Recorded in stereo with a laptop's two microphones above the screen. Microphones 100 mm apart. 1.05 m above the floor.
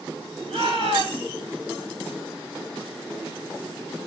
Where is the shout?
85° right, 8 m.